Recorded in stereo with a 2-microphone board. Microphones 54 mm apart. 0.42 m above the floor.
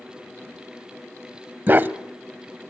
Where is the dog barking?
40° right (ahead or behind), 0.8 m.